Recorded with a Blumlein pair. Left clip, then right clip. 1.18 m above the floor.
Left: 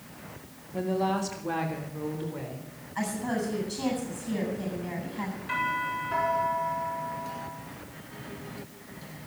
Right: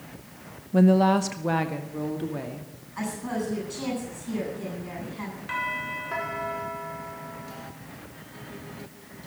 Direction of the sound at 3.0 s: 50° left.